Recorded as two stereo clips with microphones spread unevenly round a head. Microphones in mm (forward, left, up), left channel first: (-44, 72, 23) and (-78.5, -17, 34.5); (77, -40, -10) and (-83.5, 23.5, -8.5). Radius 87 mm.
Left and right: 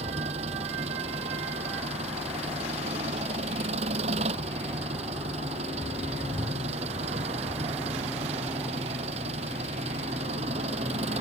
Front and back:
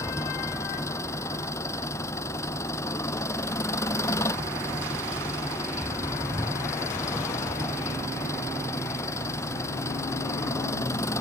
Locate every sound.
0.0 s an engine running: 95° right